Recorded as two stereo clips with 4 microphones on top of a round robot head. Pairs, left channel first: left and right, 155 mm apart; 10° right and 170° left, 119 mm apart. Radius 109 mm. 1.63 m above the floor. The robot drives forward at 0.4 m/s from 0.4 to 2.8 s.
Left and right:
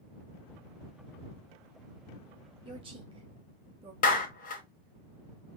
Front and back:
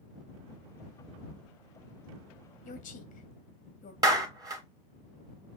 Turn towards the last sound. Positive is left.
turn(degrees=115)